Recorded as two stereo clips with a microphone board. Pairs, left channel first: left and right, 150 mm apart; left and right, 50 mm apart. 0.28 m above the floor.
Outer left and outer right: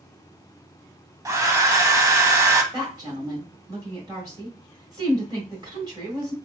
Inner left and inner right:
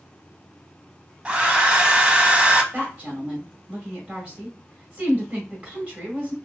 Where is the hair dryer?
20° right (ahead or behind), 0.5 m.